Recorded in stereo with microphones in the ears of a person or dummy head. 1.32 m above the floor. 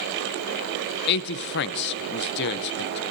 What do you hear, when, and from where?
1.1 s a man speaking: 60° left (ahead or behind), 0.7 m